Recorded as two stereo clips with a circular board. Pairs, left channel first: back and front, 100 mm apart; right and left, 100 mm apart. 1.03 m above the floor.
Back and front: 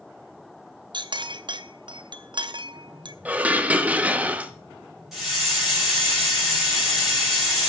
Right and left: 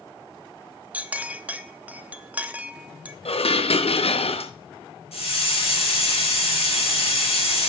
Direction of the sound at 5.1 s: 85° right.